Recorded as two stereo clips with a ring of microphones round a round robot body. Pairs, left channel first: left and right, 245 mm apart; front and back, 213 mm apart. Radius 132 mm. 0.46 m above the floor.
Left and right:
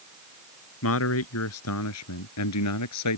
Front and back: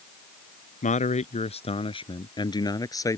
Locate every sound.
0.8 s a man speaking: 55° left; by 3.2 s 75° left